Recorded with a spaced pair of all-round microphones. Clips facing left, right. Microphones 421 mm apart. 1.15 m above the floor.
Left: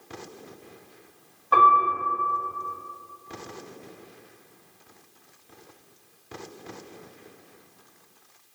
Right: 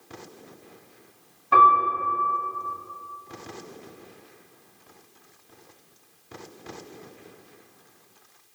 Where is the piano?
40° right (ahead or behind), 0.9 m.